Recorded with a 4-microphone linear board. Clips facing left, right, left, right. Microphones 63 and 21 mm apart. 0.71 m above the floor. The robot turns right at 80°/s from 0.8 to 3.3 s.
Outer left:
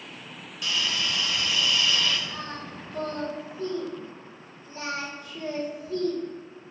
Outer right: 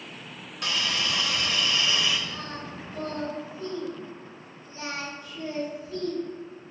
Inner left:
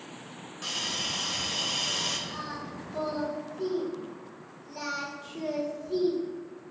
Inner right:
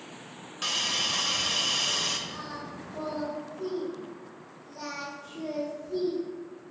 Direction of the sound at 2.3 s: 15° left (ahead or behind).